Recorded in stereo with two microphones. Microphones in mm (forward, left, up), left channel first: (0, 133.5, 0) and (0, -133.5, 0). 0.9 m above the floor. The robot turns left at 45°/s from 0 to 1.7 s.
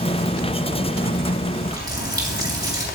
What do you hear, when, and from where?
1.6 s a running tap: 15° right (ahead or behind), 2.5 m